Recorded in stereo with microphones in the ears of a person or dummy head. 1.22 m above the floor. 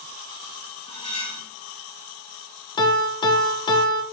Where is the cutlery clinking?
30° left (ahead or behind), 4.5 m.